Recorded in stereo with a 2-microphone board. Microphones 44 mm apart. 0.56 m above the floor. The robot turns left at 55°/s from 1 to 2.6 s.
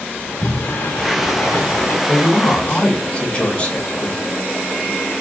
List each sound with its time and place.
0.2 s a sliding door: 125° left, 2.5 m; by 2.0 s 70° left, 2.5 m
2.1 s a woman speaking: 50° left (ahead or behind), 1.9 m; by 4.2 s 25° left (ahead or behind), 1.9 m